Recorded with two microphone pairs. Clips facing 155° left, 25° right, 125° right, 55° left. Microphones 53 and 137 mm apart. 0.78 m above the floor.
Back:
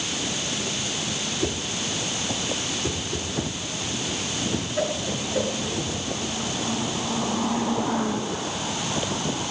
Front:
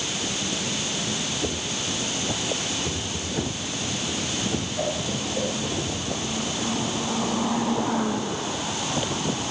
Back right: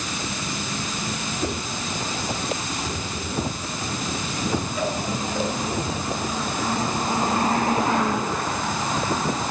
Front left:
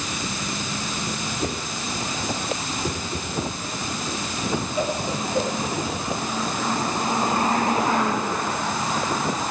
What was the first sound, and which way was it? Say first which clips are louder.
A whoosh: back 1 dB, back right 1 dB; 120° left.